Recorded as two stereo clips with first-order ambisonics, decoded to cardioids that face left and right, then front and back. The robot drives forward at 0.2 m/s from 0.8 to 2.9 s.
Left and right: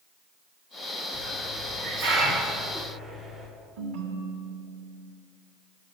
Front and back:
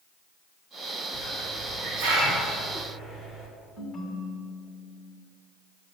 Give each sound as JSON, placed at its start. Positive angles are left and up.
{"t": 1.1, "sound": "a hiss", "azimuth_deg": -155, "distance_m": 2.0}
{"t": 3.8, "sound": "a ringtone", "azimuth_deg": -85, "distance_m": 1.0}